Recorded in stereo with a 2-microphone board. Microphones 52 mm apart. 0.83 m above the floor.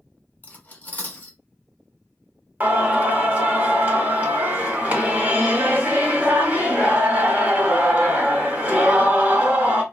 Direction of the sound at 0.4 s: 35° left (ahead or behind).